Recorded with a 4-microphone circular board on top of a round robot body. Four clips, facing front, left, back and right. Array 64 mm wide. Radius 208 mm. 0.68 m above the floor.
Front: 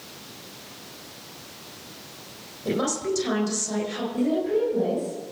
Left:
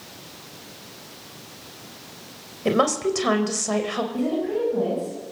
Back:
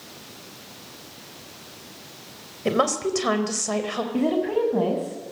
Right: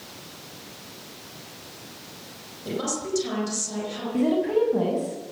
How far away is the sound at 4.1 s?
About 8 m.